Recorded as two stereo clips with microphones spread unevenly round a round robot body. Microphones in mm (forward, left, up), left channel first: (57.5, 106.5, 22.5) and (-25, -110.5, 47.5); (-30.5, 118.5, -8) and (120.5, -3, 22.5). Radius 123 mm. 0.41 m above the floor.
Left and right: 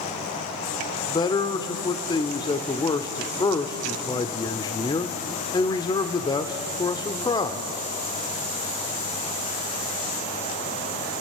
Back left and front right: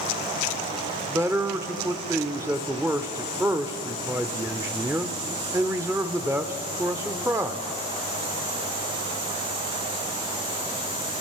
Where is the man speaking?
40° left, 1.1 m.